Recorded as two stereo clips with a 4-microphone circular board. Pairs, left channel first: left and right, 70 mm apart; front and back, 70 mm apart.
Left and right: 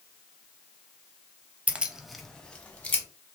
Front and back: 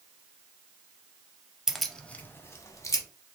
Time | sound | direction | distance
1.7 | keys jangling | 110° right | 0.6 m